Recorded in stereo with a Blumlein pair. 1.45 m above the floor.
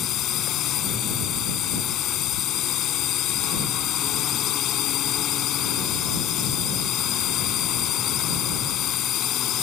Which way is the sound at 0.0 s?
35° left.